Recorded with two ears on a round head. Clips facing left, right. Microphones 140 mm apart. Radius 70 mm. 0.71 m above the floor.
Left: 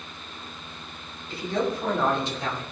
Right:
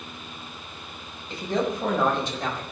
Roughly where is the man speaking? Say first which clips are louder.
Right 1 dB; right.